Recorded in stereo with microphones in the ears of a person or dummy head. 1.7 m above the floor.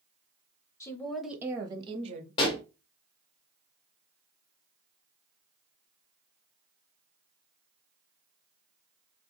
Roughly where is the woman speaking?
Centre.